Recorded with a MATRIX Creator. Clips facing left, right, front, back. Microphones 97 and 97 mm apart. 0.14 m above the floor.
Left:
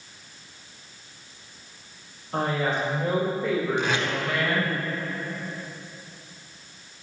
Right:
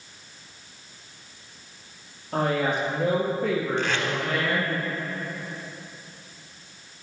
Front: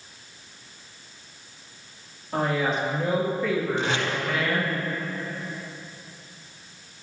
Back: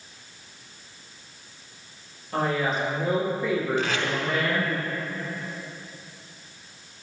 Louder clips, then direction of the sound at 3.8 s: Left 1 dB, even; 25° left.